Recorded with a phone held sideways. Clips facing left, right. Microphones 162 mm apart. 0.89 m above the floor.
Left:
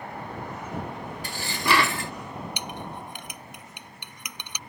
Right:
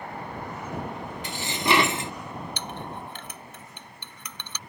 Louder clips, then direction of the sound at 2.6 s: Even; 15° left (ahead or behind).